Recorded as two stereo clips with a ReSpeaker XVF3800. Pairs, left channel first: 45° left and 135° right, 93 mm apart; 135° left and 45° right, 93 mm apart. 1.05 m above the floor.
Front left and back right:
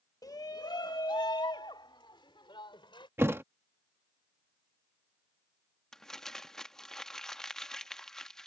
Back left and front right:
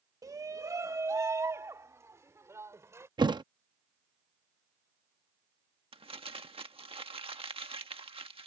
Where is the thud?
75° right.